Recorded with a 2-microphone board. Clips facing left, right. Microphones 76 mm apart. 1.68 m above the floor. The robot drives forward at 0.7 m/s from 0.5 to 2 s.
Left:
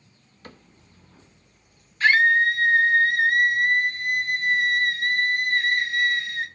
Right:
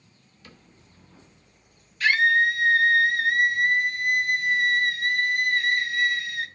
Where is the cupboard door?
45° left (ahead or behind), 1.4 m.